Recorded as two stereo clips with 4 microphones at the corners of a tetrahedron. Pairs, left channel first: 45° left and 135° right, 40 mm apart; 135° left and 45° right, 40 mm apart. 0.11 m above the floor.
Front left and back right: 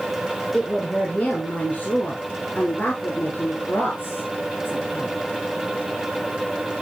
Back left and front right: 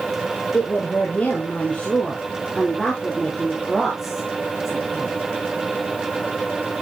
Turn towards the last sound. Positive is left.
turn(degrees=30)